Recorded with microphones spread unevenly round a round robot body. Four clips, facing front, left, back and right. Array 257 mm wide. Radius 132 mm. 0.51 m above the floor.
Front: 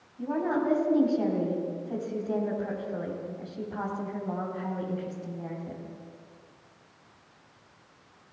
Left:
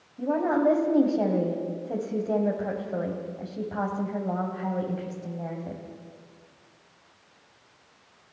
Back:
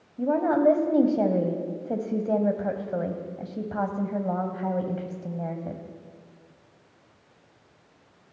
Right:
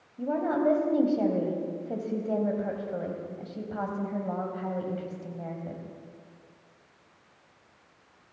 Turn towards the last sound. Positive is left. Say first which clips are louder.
# left 3 dB, back 6 dB
turn(degrees=175)